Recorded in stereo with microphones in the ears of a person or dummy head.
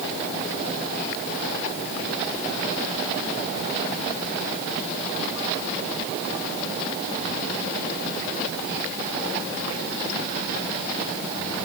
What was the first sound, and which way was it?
Only background noise.